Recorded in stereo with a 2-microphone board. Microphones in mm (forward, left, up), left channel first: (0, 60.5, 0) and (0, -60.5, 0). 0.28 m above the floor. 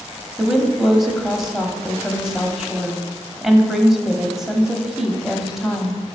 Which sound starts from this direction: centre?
A woman speaking, at 0.4 s.